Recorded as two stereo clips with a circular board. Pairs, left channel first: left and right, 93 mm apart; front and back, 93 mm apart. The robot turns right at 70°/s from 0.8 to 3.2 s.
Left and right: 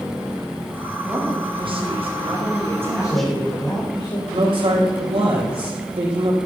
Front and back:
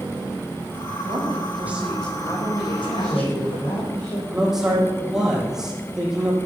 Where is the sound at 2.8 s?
20° left, 6.5 m; by 4.2 s 45° left, 6.5 m.